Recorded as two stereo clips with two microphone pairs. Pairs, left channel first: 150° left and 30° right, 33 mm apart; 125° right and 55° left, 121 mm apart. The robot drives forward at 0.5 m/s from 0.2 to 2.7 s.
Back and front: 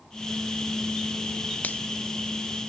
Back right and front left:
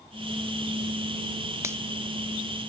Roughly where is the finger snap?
Behind left.